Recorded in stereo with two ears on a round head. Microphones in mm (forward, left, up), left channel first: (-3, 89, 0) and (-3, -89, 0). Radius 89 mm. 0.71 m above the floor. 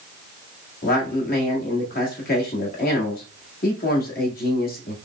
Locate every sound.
0.8 s a man speaking: 45° left (ahead or behind), 1.7 m